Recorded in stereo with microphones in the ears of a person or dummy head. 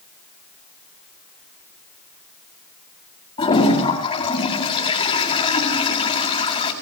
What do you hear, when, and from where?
3.4 s a toilet flushing: 20° left (ahead or behind), 9.5 m